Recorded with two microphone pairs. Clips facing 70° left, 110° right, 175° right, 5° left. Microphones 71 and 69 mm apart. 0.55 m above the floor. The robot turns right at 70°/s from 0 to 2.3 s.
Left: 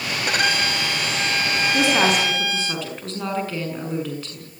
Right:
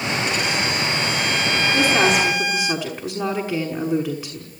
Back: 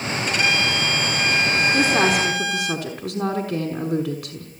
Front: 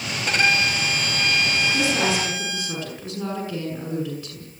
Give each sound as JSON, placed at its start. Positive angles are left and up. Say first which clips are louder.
{"t": 0.3, "sound": "a violin", "louder": "left 1 dB, front 1 dB", "azimuth_deg": 45, "distance_m": 3.5}
{"t": 1.7, "sound": "a woman speaking", "louder": "right 1 dB, back 6 dB", "azimuth_deg": 135, "distance_m": 6.0}